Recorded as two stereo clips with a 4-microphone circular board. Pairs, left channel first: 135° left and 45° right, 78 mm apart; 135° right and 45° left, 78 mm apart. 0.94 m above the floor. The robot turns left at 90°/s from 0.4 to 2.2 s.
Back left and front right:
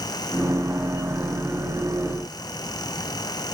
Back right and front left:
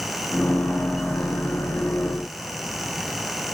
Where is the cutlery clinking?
No cutlery clinking in this recording.